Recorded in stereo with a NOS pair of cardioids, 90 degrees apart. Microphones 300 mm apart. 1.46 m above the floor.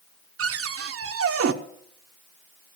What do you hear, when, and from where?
0.4 s a cupboard door: 55° right, 1.2 m